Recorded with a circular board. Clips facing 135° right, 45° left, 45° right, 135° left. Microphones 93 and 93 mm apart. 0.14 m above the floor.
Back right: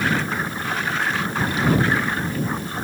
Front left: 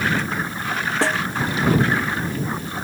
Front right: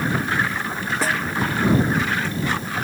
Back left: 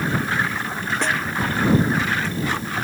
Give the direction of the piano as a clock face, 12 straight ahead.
No piano in this recording.